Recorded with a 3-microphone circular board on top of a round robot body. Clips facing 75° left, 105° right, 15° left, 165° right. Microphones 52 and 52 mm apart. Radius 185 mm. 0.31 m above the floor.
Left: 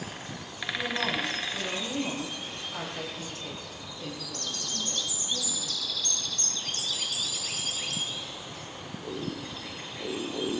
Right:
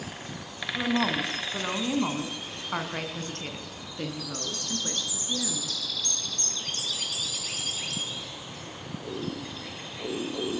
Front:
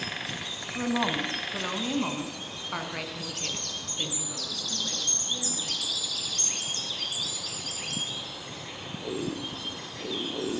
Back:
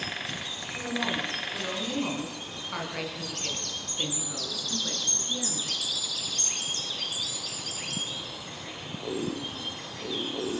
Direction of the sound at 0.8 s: 40° right.